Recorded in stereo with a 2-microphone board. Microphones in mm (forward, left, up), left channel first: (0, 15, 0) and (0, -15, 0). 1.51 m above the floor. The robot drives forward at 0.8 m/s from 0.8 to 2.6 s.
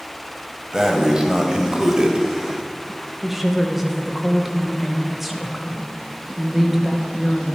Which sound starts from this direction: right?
Breathing, at 0.7 s.